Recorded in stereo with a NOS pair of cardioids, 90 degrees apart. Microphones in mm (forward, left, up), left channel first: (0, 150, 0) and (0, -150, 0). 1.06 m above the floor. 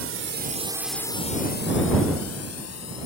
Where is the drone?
50° right; by 3.1 s 60° left.